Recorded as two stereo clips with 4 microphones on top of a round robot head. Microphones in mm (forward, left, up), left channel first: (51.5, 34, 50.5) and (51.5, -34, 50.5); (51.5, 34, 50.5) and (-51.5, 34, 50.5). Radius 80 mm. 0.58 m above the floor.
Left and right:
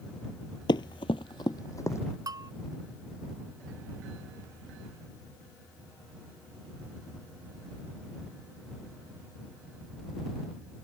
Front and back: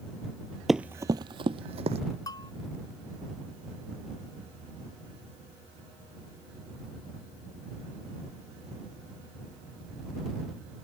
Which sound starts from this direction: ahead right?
A bell, at 2.3 s.